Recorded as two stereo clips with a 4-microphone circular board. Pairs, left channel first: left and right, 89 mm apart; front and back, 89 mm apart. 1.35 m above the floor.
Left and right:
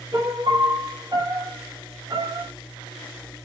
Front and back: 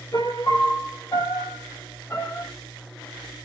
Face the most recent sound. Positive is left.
turn(degrees=-50)